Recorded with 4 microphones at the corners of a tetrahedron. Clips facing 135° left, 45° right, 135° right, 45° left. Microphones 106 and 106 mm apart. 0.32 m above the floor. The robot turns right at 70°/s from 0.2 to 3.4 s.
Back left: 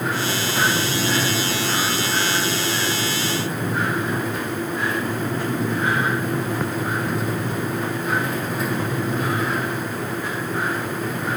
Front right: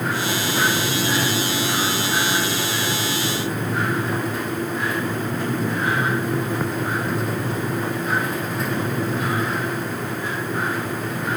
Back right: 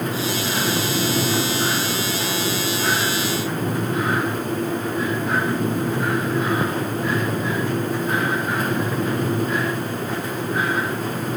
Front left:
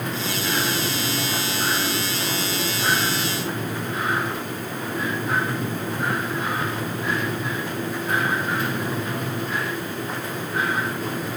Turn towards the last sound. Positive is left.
No sound to turn to.